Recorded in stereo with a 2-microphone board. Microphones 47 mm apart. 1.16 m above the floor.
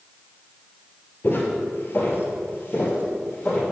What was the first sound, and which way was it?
Footsteps, 40° left (ahead or behind).